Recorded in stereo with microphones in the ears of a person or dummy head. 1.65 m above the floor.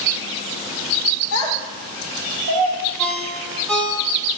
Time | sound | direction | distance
1.3 | a child speaking | 25° right (ahead or behind) | 0.9 m
3.0 | a ringtone | 10° left (ahead or behind) | 1.0 m